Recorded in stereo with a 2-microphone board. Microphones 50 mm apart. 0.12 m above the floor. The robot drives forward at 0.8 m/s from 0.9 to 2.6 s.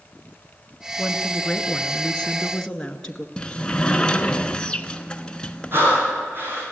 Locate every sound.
1.0 s a woman speaking: 15° left (ahead or behind), 1.3 m
3.4 s a sliding door: 20° left (ahead or behind), 1.0 m
5.7 s breathing: 50° right (ahead or behind), 10 m